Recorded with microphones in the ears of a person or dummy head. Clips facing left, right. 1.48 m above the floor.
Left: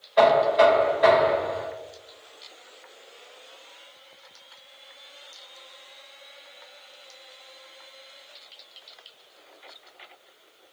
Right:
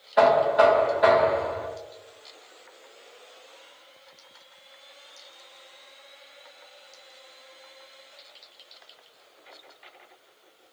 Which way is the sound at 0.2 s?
20° right (ahead or behind).